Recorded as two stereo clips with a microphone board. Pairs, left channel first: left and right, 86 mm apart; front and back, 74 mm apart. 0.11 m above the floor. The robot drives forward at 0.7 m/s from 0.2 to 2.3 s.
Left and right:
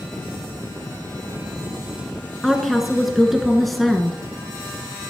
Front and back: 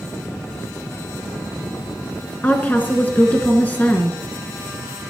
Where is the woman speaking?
Straight ahead, 1.2 m.